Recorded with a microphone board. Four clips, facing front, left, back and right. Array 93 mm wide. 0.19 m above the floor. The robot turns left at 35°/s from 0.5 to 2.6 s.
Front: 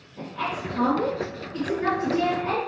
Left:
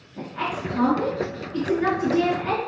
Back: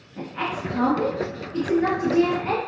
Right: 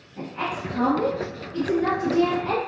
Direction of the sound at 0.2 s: 150° left.